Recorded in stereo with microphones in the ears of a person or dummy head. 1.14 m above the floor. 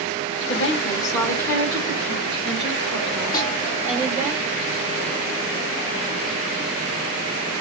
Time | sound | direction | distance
0.5 | a woman speaking | 30° left (ahead or behind) | 0.8 m
3.3 | a snare drum | 20° left (ahead or behind) | 1.3 m